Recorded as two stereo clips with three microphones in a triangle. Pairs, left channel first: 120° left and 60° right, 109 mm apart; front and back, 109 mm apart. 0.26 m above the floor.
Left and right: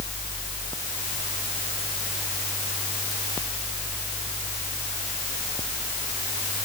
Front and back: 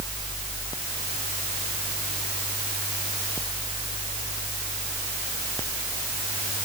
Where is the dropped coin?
I don't hear a dropped coin.